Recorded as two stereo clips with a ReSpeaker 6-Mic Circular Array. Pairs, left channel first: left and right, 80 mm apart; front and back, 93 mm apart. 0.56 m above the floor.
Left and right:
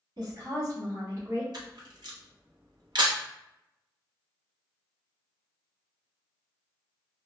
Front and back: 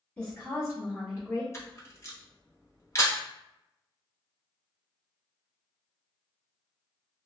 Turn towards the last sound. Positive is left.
turn(degrees=-60)